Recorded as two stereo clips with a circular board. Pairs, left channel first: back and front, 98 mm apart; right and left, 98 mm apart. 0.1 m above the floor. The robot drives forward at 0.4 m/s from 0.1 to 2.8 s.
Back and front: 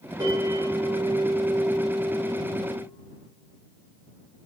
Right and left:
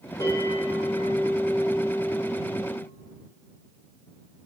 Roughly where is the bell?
Ahead right.